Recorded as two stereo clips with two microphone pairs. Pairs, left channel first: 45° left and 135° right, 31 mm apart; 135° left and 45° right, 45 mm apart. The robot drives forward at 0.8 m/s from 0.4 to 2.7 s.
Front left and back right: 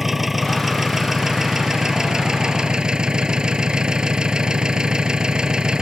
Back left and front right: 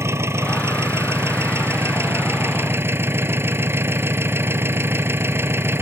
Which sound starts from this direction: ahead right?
An engine running, at 0.0 s.